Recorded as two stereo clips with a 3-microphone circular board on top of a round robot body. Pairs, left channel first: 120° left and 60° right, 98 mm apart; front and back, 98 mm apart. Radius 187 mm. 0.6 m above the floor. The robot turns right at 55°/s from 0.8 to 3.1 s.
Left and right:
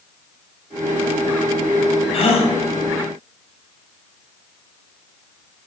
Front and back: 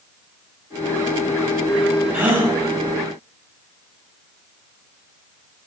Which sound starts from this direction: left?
A gasp, at 2.1 s.